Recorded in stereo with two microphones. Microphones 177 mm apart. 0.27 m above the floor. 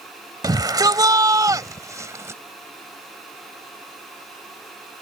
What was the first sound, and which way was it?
A shout, 20° right (ahead or behind).